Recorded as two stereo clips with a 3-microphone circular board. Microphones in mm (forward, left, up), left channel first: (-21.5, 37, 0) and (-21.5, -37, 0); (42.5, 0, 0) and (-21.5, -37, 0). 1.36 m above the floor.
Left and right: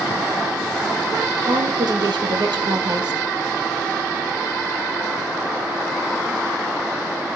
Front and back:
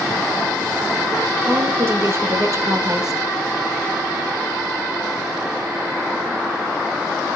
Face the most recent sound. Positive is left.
turn(degrees=-120)